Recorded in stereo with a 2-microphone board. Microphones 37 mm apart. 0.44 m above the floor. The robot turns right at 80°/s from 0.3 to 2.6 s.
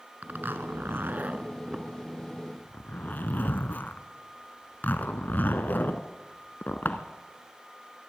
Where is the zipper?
55° right (ahead or behind), 1.3 m; by 7.0 s 60° left (ahead or behind), 1.3 m.